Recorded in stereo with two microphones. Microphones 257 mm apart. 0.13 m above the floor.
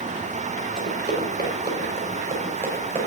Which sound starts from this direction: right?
Running footsteps, at 0.8 s.